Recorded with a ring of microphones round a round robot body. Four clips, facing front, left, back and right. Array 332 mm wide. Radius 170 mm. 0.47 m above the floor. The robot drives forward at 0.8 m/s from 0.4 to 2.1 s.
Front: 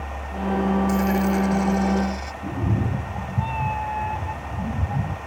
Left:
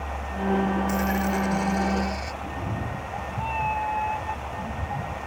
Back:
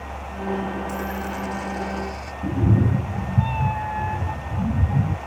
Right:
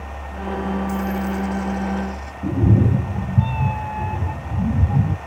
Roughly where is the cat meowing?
Right.